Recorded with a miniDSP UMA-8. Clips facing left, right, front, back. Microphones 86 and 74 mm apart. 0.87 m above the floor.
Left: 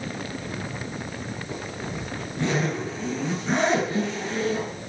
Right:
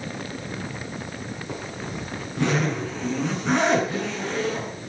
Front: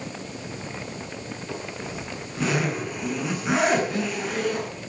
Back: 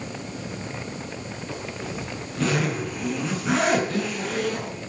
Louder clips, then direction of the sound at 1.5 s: Right 1 dB, back 1 dB; 85° right.